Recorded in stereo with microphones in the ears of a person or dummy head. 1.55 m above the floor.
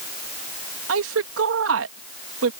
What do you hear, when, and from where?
0.9 s a woman speaking: 85° right